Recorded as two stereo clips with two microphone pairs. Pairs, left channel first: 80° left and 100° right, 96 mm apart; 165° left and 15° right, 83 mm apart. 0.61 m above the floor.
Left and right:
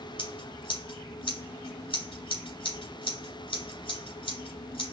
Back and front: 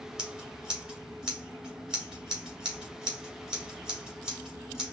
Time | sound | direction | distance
0.2 | scissors | 70° left | 2.5 m